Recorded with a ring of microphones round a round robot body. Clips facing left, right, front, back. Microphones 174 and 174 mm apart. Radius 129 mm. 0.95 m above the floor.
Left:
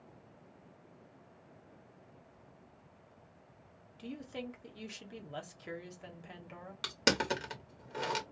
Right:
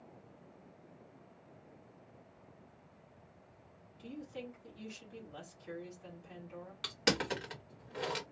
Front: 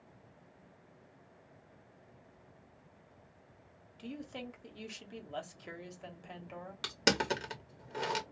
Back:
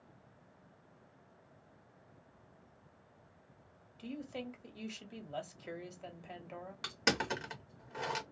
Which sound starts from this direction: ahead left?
Crushing, at 6.8 s.